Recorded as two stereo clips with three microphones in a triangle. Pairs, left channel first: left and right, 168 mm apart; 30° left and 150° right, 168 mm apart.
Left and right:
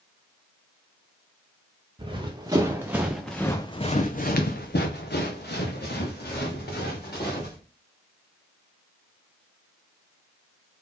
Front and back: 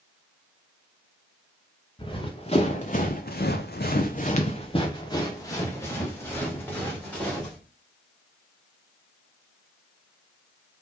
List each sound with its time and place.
2.0 s running footsteps: 30° right, 1.2 m; by 7.6 s 110° left, 2.5 m